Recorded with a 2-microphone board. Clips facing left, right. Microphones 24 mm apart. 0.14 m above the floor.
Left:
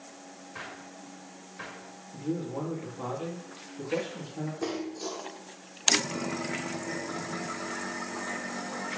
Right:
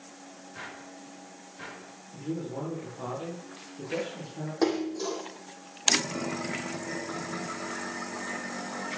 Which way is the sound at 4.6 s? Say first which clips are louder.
Right 8 dB; 75° right (ahead or behind).